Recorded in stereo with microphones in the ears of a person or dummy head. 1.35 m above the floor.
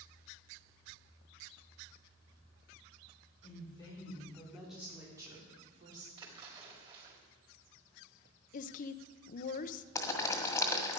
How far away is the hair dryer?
I don't hear a hair dryer.